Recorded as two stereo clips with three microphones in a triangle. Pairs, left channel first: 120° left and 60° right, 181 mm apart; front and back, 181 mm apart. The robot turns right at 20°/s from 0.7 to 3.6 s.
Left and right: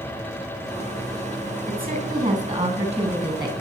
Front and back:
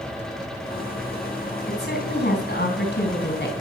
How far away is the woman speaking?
About 3.5 m.